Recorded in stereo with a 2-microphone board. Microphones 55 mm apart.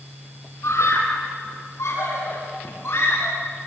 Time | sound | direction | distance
0.6 | a scream | 65° left (ahead or behind) | 4.5 m